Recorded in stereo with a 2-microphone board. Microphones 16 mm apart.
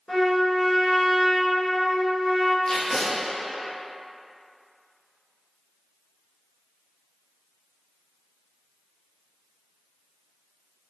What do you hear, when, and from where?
0.1 s a trumpet: 70° left (ahead or behind), 1.8 m
2.6 s tape being pulled: 65° left (ahead or behind), 0.7 m